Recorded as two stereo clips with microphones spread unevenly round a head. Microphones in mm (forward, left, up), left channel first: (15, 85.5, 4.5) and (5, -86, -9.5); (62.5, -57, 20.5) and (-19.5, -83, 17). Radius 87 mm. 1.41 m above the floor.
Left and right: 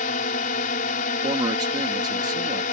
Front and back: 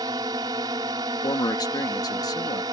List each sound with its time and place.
0.0 s a drone: 135° left
1.2 s a man speaking: 25° right